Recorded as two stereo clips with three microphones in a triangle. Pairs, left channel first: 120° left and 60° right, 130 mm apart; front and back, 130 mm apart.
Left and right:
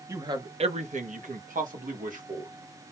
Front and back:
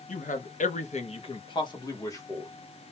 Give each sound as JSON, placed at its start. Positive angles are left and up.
{"t": 0.1, "sound": "a man speaking", "azimuth_deg": 10, "distance_m": 0.6}